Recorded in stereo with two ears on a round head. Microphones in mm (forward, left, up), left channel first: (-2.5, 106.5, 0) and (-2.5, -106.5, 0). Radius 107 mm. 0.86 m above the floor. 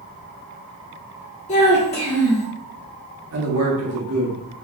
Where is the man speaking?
70° right (ahead or behind), 1.4 m.